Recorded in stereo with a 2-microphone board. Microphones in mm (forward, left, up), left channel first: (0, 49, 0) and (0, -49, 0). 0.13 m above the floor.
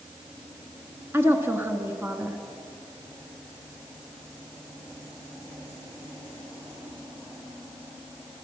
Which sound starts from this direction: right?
A woman speaking, at 1.1 s.